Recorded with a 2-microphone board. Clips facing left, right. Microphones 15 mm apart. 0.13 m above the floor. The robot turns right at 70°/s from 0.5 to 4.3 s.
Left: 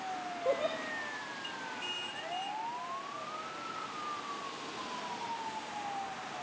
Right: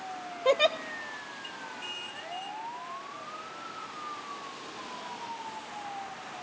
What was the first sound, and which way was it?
A giggle, 65° right (ahead or behind).